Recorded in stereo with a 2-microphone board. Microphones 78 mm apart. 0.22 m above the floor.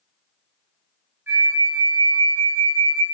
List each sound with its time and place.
1.3 s a flute: 30° right (ahead or behind), 0.9 m